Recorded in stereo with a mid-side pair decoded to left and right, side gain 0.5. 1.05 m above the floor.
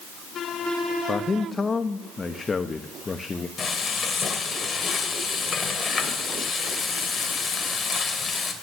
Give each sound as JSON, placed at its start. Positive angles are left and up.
{"t": 1.1, "sound": "a man speaking", "azimuth_deg": 30, "distance_m": 1.0}
{"t": 3.6, "sound": "frying", "azimuth_deg": 35, "distance_m": 2.0}